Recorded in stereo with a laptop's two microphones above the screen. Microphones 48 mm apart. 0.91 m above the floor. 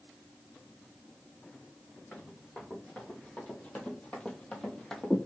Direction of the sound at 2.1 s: 25° left (ahead or behind).